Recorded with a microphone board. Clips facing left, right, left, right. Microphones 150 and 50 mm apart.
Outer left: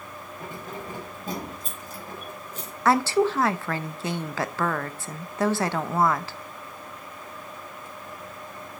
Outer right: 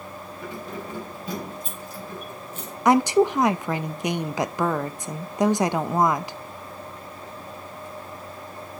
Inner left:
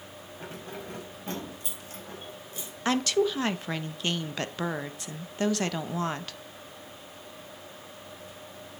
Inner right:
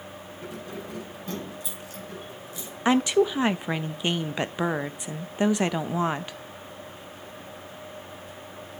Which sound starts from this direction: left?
Keys jangling, at 0.4 s.